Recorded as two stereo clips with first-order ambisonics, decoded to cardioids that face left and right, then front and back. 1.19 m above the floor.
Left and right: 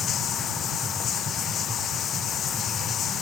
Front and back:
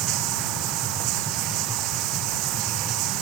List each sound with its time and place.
0.0 s running water: 150° left